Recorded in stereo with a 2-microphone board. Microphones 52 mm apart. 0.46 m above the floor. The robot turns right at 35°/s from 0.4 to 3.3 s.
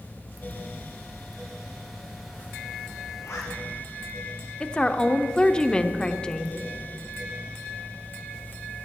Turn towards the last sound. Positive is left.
turn(degrees=20)  # may be behind; listen again after turning